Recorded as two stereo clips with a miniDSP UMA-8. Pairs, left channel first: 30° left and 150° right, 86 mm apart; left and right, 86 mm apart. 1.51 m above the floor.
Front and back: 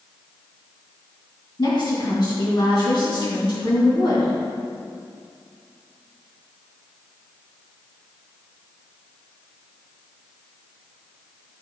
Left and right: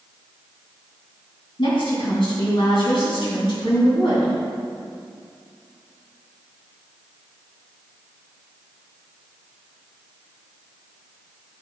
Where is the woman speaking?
65° left, 2.5 m.